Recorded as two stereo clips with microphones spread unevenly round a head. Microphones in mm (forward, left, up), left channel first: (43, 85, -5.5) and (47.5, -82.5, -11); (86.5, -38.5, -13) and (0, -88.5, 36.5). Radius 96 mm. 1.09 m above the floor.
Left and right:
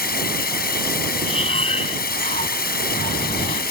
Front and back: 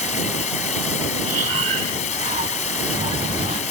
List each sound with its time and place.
0.0 s running water: 60° left
1.2 s breathing: 155° left